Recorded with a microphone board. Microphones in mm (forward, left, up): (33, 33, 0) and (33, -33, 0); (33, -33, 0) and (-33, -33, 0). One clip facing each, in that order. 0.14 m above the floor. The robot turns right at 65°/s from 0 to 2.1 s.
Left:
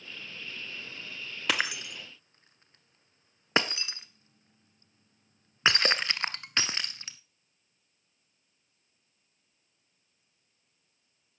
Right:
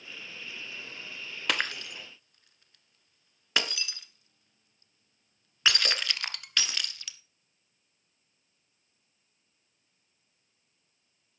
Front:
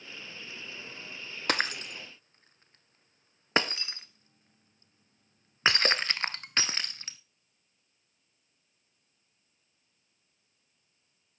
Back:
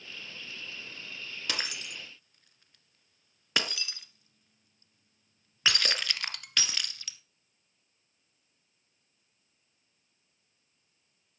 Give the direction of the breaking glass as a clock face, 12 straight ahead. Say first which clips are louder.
Left 1 dB, front 8 dB; 12 o'clock.